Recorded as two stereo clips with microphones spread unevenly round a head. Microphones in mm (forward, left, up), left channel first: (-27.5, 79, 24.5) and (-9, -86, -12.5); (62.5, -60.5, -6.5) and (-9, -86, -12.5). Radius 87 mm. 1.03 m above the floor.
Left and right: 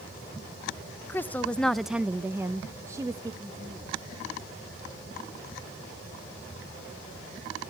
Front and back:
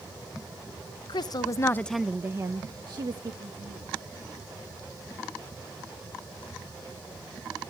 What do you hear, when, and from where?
1.1 s a woman speaking: 10° left, 0.9 m; by 3.9 s 155° right, 1.9 m